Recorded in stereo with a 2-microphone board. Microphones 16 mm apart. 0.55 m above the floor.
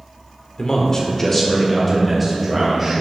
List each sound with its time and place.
0.6 s a man speaking: 45° left (ahead or behind), 1.7 m; by 3.0 s 15° right (ahead or behind), 4 m